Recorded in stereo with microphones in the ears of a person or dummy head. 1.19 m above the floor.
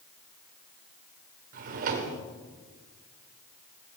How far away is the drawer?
About 1.1 m.